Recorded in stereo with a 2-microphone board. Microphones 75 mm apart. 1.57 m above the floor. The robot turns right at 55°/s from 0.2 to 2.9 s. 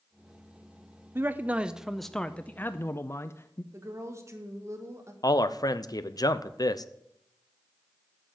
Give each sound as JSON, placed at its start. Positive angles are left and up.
{"t": 1.1, "sound": "a man speaking", "azimuth_deg": -45, "distance_m": 0.5}
{"t": 3.7, "sound": "a woman speaking", "side_deg": -40, "distance_m": 1.8}
{"t": 5.2, "sound": "a man speaking", "side_deg": 55, "distance_m": 0.7}